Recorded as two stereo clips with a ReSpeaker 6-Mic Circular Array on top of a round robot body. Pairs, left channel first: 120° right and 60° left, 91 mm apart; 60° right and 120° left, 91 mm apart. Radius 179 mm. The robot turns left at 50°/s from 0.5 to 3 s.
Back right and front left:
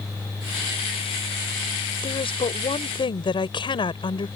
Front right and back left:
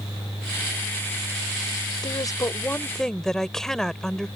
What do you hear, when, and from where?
2.0 s a woman speaking: 95° right; by 4.3 s 145° right